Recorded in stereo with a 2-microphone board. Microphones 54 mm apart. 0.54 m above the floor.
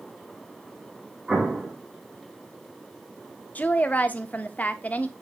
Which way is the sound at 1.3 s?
20° right (ahead or behind).